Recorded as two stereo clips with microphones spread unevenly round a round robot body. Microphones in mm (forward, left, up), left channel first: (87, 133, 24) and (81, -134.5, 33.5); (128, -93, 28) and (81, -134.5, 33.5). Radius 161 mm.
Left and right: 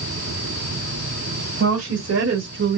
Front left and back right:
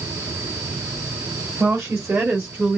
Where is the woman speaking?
105° right, 1.4 m; by 2.8 s 65° right, 1.0 m.